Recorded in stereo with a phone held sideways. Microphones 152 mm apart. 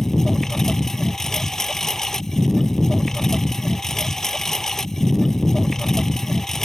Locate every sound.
0.0 s a lawn mower: 5° left (ahead or behind)